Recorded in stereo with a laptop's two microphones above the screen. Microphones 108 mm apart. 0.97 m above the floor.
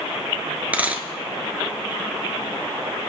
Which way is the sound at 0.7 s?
15° right (ahead or behind).